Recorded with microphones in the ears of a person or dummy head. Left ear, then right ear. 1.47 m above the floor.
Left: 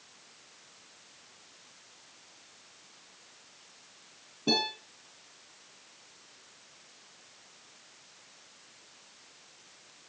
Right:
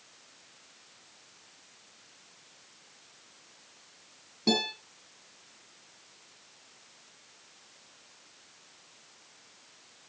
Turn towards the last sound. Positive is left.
turn(degrees=-60)  # may be behind; listen again after turning